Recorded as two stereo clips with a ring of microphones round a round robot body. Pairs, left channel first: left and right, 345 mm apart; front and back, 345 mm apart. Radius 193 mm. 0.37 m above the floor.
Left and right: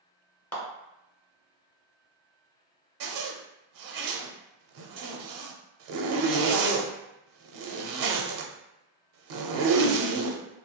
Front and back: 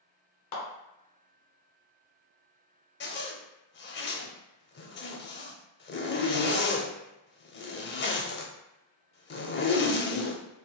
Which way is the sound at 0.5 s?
5° left.